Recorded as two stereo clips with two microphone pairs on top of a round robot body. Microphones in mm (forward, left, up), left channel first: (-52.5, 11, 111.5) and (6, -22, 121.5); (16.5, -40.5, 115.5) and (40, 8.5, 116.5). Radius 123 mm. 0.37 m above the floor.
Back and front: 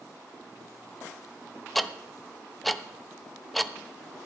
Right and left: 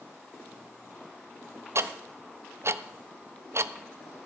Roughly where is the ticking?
Left.